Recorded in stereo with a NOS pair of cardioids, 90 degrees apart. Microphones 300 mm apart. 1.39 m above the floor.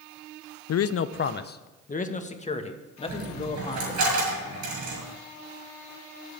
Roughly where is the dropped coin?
Ahead right.